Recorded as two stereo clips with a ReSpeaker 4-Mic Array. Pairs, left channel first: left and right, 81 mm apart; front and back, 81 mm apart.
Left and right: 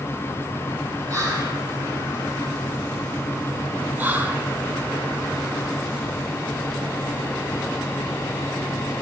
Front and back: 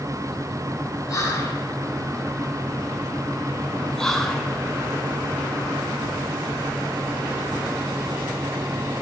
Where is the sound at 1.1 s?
50° right, 3.5 m.